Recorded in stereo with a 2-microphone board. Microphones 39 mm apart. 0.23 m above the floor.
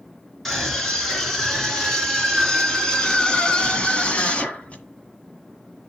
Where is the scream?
5° left (ahead or behind), 3 m; by 4.8 s 35° left (ahead or behind), 1.8 m.